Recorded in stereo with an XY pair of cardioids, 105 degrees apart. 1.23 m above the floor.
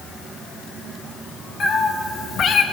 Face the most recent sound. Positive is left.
turn(degrees=75)